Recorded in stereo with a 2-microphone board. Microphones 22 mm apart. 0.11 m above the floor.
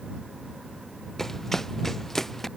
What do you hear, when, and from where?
1.2 s running footsteps: 15° left (ahead or behind)